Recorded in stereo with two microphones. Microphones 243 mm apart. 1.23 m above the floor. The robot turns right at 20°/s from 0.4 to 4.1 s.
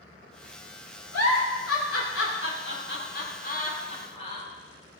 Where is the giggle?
80° left, 2.5 m; by 4.5 s 25° left (ahead or behind), 2.5 m.